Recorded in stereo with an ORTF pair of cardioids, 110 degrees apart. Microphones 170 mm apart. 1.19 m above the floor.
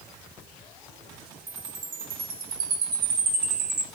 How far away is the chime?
About 4 m.